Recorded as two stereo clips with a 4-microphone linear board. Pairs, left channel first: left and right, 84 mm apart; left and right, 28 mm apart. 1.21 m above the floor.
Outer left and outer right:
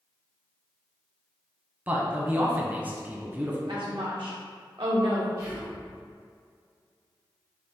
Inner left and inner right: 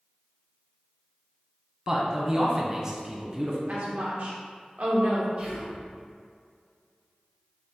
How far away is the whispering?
About 1.4 m.